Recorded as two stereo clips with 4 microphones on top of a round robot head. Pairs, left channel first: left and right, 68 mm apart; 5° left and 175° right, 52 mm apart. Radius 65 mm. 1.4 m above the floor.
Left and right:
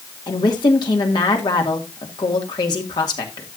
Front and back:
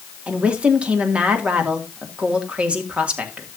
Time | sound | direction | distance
0.3 | a woman speaking | 120° left | 2.5 m